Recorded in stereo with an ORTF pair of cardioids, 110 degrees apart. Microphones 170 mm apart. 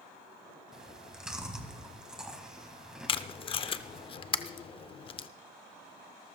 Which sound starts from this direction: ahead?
Chewing, at 0.7 s.